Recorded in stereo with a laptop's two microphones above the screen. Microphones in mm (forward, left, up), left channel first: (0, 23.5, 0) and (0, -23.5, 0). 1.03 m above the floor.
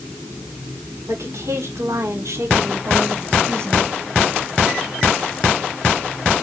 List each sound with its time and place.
1.1 s a woman speaking: 80° right, 4 m; by 3.9 s 70° right (ahead or behind), 2.5 m